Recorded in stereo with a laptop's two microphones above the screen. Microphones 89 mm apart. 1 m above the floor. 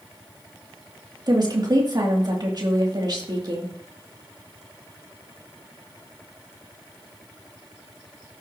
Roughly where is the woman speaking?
Right.